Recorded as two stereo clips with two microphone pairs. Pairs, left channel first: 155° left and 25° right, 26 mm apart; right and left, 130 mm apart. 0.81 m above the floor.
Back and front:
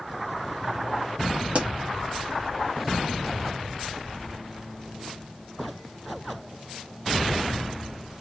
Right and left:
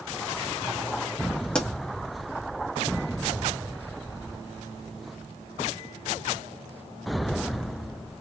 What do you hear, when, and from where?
1.6 s a pop: 10° right, 1.2 m